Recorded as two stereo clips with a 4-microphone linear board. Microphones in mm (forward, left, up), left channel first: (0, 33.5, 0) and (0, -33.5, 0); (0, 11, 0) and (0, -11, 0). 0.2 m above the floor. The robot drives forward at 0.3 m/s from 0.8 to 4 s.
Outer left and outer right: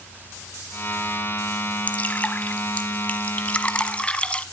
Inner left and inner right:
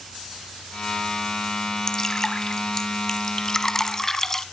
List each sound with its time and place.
1.9 s dripping: 25° left (ahead or behind), 1.0 m; by 4.4 s 20° left (ahead or behind), 1.3 m